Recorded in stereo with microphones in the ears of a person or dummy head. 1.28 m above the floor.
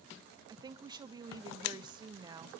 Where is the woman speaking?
25° right (ahead or behind), 0.9 m.